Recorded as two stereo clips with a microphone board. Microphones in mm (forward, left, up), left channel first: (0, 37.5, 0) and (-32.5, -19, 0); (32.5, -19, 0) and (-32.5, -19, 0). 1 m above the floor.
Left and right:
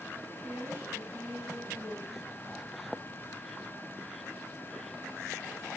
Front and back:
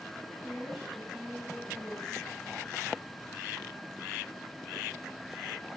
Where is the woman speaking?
95° right, 7 m; by 2.3 s 85° right, 6 m.